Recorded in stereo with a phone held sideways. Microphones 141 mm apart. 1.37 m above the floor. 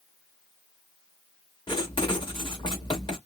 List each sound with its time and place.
1.7 s writing: 35° left (ahead or behind), 1.3 m